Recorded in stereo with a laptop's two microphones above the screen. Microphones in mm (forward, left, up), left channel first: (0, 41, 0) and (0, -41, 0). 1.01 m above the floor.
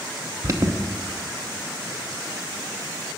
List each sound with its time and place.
0.4 s an alarm: 40° right (ahead or behind), 0.7 m